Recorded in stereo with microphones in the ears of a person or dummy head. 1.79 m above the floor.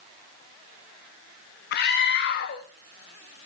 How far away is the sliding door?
I don't hear a sliding door.